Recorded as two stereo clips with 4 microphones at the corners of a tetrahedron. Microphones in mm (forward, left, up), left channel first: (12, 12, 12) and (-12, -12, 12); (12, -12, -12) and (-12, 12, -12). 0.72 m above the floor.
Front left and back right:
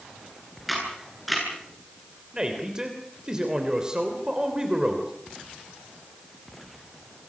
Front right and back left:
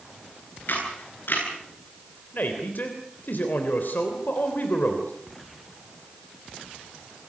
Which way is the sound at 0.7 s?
45° right.